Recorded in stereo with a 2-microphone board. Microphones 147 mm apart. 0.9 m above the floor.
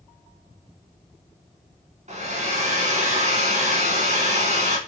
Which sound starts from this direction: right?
A hair dryer, at 2.1 s.